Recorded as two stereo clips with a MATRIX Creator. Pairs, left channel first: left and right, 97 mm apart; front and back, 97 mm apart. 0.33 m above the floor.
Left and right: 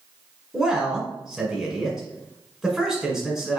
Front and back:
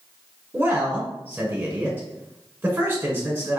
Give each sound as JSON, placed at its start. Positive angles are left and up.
{"t": 0.5, "sound": "a man speaking", "azimuth_deg": -165, "distance_m": 1.3}